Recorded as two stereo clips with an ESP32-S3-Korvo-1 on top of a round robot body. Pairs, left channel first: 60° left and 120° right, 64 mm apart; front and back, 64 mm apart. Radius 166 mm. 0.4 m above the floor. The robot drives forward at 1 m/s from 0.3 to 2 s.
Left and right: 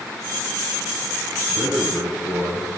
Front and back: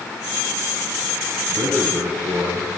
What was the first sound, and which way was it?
A man speaking, 170° right.